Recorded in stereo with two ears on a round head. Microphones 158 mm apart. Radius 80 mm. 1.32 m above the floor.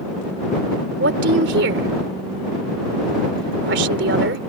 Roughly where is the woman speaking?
Right.